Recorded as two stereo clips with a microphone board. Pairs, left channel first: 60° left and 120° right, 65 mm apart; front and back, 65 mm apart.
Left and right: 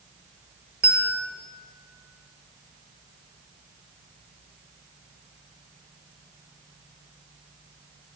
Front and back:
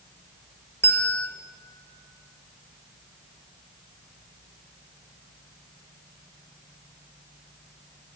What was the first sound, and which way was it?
A bell, 50° right.